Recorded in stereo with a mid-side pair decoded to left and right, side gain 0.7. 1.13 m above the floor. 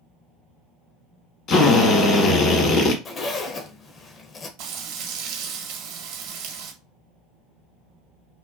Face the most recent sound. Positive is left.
turn(degrees=-70)